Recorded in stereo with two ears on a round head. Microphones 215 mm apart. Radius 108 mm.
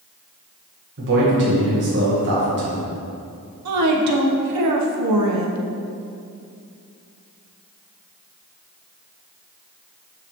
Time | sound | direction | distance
1.0 | a man speaking | 50° right (ahead or behind) | 1.5 m
3.6 | a woman speaking | 80° right | 1.0 m